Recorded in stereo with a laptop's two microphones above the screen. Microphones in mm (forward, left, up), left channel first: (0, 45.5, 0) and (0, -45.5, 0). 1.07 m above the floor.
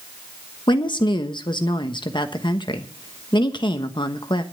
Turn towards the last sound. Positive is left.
turn(degrees=60)  # may be behind; listen again after turning